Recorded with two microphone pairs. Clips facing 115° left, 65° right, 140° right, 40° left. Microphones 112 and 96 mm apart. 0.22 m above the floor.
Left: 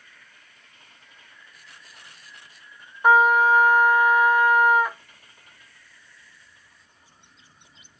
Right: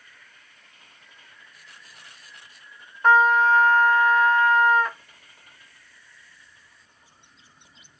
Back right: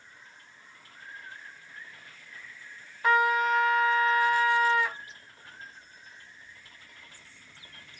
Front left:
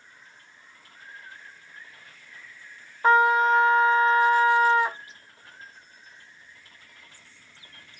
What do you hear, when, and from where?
3.0 s a trumpet: 45° left, 0.5 m